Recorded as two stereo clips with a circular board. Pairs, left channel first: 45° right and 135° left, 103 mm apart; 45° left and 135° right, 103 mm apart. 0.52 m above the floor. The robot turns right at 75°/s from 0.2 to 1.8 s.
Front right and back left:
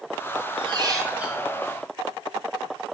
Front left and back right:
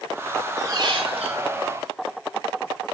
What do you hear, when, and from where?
0.6 s a squeak: 165° left, 4.5 m; by 1.4 s 135° right, 4.5 m